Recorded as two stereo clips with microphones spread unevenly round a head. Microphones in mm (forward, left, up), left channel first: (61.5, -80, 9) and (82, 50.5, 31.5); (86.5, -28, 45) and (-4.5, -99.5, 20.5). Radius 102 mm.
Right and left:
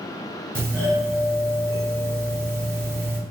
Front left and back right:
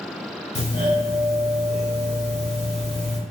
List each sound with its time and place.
0.6 s a doorbell: 5° left, 1.4 m